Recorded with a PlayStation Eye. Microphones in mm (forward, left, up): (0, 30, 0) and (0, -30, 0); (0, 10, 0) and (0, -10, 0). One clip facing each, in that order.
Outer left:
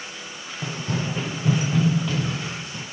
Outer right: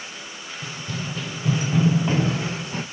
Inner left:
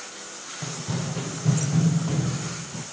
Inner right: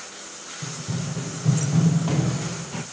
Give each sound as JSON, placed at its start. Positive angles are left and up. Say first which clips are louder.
{"t": 0.6, "sound": "running footsteps", "louder": "outer left 5 dB, even", "side_deg": 45, "distance_m": 1.8}